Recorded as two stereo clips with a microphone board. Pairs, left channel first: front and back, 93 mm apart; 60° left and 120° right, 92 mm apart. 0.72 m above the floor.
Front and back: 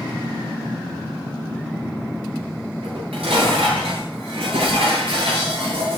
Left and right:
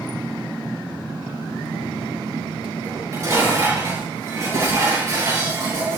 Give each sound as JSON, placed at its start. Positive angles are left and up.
{"t": 2.8, "sound": "dishes clattering", "azimuth_deg": 180, "distance_m": 8.0}